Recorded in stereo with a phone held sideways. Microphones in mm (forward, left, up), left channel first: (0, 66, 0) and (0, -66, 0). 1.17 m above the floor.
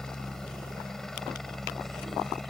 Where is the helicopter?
5° left (ahead or behind); by 2.5 s centre (ahead or behind).